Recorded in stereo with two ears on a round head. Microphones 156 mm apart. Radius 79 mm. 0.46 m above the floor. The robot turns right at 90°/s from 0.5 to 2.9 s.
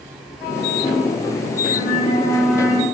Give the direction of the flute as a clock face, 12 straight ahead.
8 o'clock.